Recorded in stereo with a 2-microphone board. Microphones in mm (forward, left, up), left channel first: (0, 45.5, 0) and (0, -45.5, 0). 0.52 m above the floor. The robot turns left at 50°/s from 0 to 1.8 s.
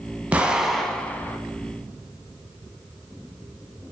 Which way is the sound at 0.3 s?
160° right.